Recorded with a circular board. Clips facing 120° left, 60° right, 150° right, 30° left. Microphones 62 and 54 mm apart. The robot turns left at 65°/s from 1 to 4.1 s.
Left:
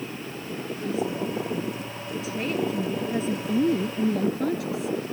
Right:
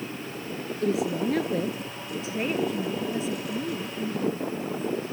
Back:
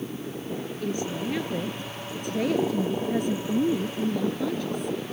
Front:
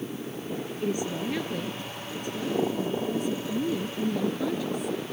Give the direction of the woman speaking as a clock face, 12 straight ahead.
1 o'clock.